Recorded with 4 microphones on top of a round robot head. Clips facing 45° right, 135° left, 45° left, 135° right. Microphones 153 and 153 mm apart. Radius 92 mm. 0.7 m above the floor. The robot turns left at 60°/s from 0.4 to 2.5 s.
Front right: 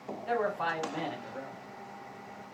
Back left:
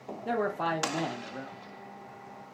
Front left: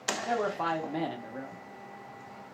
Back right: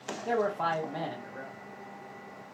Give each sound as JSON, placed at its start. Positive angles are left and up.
{"t": 0.2, "sound": "a man speaking", "azimuth_deg": 140, "distance_m": 0.7}